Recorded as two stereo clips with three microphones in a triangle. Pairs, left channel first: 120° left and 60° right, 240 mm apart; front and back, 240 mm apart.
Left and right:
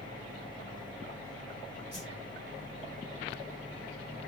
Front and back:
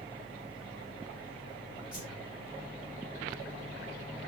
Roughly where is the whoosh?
Ahead right.